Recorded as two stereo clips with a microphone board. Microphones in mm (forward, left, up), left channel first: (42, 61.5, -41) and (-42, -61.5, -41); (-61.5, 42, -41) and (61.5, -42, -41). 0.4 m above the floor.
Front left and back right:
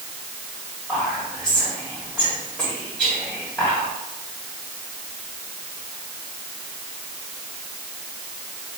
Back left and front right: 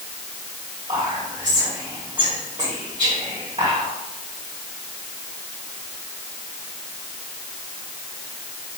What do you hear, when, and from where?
0.9 s whispering: 30° right, 1.7 m